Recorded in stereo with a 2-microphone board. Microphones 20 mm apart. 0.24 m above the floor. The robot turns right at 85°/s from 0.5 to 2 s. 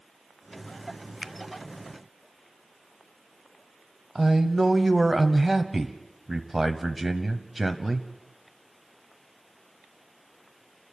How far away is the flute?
I don't hear a flute.